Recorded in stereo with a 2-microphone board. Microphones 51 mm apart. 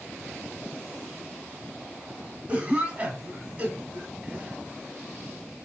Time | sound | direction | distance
2.5 | a cough | 25° right (ahead or behind) | 1.4 m